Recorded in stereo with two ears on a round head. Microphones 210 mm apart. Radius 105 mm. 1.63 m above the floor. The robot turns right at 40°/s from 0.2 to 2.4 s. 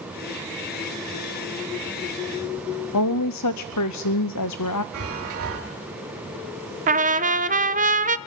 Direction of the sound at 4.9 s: 70° right (ahead or behind).